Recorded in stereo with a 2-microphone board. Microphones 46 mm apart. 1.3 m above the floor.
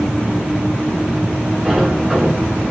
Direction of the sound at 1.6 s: 10° right (ahead or behind).